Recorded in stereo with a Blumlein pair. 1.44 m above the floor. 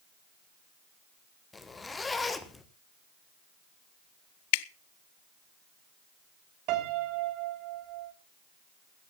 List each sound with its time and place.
1.5 s a zipper: 10° left, 1.3 m
4.5 s dripping: 50° left, 0.5 m
6.7 s a piano: 40° right, 3 m